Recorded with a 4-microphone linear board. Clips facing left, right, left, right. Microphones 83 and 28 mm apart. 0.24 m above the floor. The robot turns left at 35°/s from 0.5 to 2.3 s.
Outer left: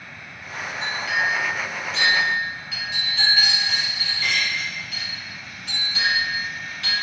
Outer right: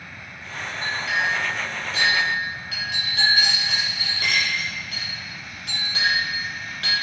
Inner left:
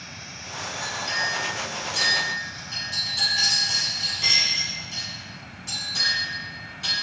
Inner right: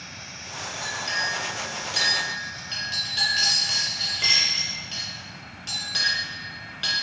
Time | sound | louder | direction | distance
0.8 | a clink | even, even | 15° right (ahead or behind) | 2.0 m